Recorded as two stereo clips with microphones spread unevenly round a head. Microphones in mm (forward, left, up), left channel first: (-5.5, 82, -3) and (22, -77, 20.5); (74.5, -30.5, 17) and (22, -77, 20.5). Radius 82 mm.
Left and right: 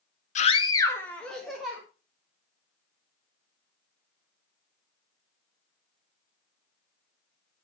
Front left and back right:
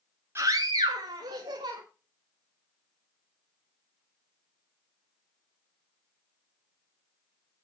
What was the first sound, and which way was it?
A scream, 145° left.